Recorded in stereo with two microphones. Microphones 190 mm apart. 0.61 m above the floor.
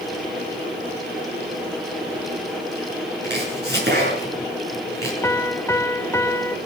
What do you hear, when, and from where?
3.2 s chopping: 65° right (ahead or behind), 6.5 m
5.2 s a piano: 15° left (ahead or behind), 0.6 m